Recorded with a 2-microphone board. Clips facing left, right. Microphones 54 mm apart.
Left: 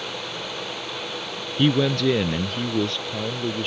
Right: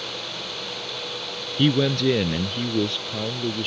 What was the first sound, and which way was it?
A man speaking, 5° left (ahead or behind).